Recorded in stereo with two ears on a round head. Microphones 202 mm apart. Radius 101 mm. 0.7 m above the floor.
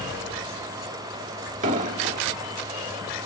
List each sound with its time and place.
1.6 s an explosion: 35° right (ahead or behind), 0.8 m